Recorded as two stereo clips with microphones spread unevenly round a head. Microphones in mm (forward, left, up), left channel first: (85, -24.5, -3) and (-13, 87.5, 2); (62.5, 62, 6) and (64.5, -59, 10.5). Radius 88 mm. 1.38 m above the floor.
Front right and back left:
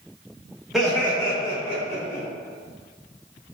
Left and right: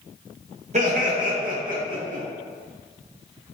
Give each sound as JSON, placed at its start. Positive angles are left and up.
{"t": 0.7, "sound": "laughter", "azimuth_deg": -140, "distance_m": 0.8}